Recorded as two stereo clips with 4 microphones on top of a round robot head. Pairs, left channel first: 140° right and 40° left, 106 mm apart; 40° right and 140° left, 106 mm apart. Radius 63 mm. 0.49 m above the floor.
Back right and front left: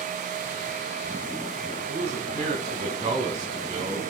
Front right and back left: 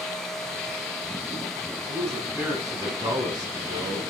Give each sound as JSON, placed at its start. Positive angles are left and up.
{"t": 1.9, "sound": "a man speaking", "azimuth_deg": 75, "distance_m": 5.0}